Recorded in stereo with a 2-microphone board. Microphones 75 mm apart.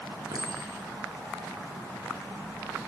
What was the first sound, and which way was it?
A clink, 55° right (ahead or behind).